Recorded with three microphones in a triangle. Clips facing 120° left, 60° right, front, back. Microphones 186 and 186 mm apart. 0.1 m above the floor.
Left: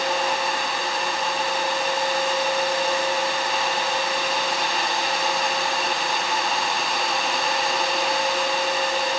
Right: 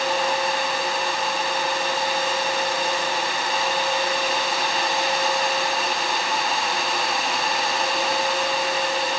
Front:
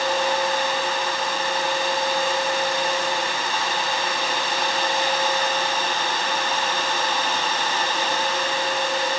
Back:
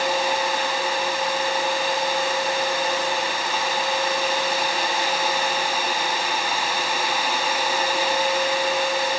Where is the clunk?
No clunk in this recording.